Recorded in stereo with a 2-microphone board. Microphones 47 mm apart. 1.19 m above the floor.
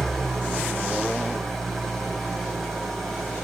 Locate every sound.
0.0 s an engine running: 5° left (ahead or behind), 4 m